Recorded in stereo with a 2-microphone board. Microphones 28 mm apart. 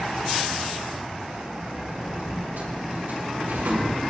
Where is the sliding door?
80° right, 4 m.